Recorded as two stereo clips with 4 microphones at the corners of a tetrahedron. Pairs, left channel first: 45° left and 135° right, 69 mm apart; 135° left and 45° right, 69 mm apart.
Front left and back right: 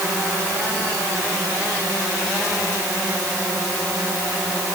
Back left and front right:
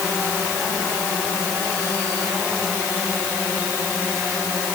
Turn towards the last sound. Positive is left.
No sound to turn to.